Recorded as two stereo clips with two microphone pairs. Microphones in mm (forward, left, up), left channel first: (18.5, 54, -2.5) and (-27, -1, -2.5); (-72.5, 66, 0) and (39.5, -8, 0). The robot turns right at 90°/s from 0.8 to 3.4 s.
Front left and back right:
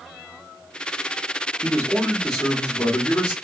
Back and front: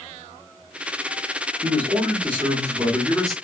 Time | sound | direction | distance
1.6 | a man speaking | 85° right | 0.9 m